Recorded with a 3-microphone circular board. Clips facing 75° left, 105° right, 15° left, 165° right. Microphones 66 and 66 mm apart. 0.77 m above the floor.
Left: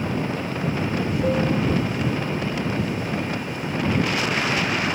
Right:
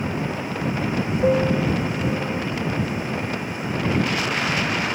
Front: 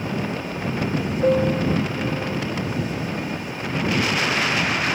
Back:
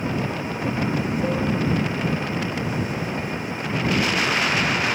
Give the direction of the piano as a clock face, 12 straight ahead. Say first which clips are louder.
Right 4 dB, front 8 dB; 1 o'clock.